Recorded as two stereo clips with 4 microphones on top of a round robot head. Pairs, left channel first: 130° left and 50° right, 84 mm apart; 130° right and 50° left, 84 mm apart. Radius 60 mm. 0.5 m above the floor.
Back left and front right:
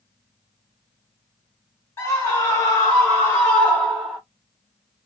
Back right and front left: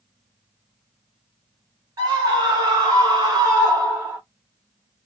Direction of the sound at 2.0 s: 85° left.